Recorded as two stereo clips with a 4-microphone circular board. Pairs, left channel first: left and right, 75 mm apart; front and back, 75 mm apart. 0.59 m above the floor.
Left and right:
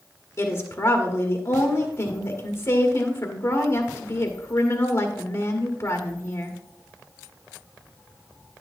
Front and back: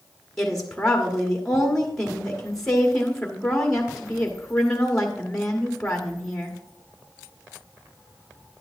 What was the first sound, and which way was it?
A woman speaking, 85° left.